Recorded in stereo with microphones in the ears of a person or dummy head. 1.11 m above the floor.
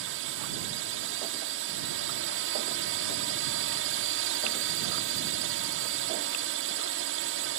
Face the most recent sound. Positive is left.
turn(degrees=-60)  # may be behind; listen again after turning